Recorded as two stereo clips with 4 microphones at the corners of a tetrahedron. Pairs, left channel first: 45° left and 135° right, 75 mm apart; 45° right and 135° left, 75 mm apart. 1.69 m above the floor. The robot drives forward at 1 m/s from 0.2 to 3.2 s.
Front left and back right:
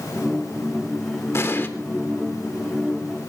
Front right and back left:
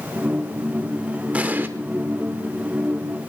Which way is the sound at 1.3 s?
75° left.